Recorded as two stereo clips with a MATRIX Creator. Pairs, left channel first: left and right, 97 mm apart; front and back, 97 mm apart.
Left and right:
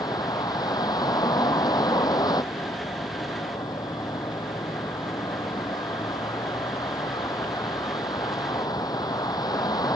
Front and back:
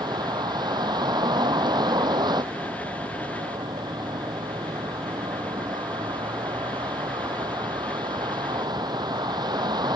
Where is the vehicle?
135° left.